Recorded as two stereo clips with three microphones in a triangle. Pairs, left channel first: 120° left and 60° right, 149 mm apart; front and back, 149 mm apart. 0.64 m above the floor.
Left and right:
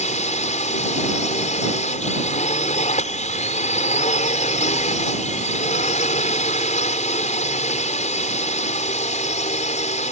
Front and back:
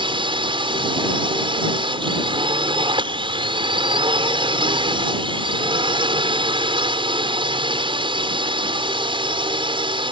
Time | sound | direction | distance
0.0 | a drone | 135° left | ?